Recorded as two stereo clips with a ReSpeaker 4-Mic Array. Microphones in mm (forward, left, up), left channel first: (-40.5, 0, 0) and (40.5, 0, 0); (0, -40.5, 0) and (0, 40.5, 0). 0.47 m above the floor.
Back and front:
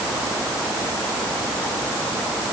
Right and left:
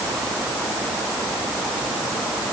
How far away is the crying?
No crying in this recording.